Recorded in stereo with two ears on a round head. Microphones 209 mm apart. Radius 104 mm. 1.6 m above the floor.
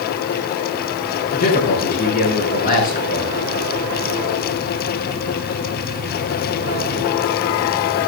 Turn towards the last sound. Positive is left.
turn(degrees=40)  # may be behind; listen again after turning